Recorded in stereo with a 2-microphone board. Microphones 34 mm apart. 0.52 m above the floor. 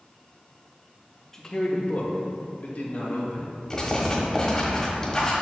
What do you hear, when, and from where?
1.3 s a man speaking: 15° left (ahead or behind), 0.8 m; by 3.6 s 60° left (ahead or behind), 3 m
3.7 s writing: 25° left (ahead or behind), 1.4 m